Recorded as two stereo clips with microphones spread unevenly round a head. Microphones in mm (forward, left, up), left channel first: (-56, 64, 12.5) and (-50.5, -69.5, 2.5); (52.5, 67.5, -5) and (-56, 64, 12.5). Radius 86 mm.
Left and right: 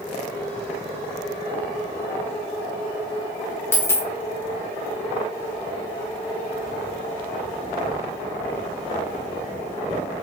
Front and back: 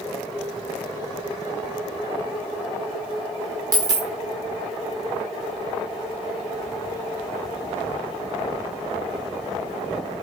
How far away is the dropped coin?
About 1.0 m.